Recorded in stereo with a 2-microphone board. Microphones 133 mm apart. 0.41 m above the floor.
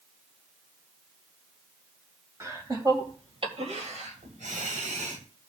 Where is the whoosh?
I don't hear a whoosh.